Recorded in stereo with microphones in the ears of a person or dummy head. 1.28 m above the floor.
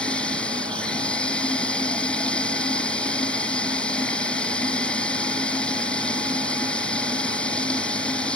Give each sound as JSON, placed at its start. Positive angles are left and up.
{"t": 0.0, "sound": "running water", "side_deg": 10}